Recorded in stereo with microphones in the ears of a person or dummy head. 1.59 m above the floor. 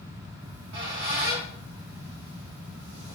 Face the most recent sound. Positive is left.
turn(degrees=-60)  # may be behind; listen again after turning